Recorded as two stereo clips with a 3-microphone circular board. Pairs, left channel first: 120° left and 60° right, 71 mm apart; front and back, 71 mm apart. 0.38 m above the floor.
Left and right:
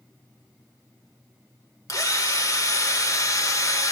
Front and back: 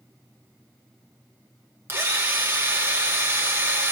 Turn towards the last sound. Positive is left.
turn(degrees=135)